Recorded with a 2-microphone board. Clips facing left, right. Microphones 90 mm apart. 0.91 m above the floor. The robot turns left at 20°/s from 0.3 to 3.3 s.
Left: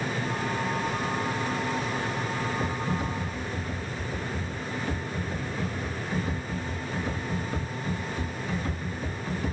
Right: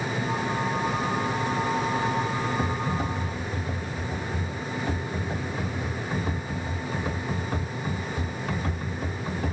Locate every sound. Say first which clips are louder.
2.6 s typing on a keyboard: right 2 dB; 65° right (ahead or behind), 1.0 m; by 9.5 s 60° right (ahead or behind), 1.0 m